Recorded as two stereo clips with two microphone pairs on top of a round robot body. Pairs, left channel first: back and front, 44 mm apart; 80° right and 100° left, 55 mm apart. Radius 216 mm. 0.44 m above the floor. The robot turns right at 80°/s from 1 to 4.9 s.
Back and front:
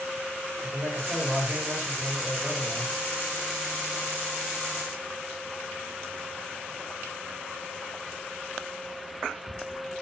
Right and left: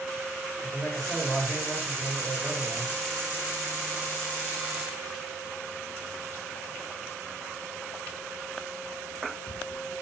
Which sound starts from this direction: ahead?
A man speaking, at 0.6 s.